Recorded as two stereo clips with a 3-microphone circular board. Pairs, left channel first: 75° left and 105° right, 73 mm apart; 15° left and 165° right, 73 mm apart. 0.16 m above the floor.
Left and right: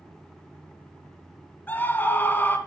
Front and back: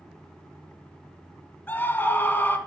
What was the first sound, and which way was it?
A scream, 45° left.